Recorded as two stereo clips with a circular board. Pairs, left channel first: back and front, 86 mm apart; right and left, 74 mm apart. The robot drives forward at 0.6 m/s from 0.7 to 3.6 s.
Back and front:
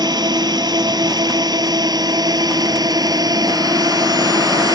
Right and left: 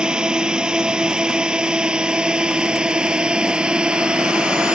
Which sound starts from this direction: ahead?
A drone, at 0.0 s.